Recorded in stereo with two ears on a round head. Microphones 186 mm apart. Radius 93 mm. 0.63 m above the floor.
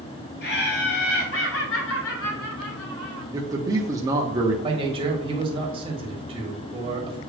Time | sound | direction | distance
0.4 | laughter | 50° left (ahead or behind) | 2.5 m
3.3 | a man speaking | 15° right (ahead or behind) | 0.7 m
4.6 | a man speaking | 25° right (ahead or behind) | 1.5 m